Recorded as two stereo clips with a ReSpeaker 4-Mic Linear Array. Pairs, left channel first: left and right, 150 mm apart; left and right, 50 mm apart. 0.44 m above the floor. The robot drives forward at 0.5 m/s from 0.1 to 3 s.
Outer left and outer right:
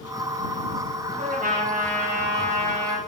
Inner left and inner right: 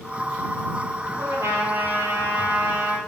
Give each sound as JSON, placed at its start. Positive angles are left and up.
{"t": 1.2, "sound": "a trumpet", "side_deg": -50, "distance_m": 3.0}